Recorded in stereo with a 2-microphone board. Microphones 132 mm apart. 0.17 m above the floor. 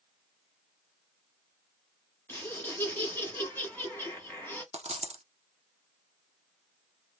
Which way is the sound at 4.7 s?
55° right (ahead or behind).